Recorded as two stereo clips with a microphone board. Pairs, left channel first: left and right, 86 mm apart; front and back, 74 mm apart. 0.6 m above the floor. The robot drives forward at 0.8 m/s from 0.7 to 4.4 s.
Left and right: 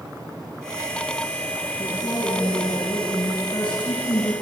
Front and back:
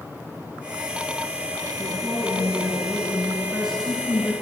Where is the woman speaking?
85° left, 7.5 m; by 4.3 s 100° left, 7.5 m.